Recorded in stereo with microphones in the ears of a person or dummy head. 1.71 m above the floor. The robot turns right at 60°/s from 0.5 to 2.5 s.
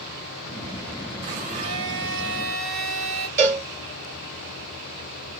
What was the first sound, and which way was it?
A blender, 75° right.